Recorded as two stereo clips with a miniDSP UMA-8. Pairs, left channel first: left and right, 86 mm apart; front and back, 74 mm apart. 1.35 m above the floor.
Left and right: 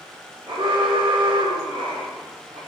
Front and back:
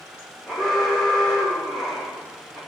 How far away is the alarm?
About 6 m.